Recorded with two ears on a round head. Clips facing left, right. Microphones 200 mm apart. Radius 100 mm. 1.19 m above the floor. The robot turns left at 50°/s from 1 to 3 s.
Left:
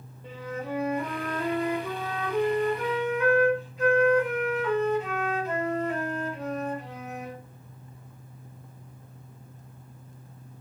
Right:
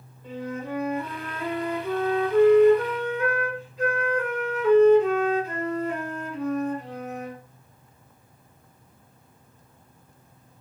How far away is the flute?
About 1.6 m.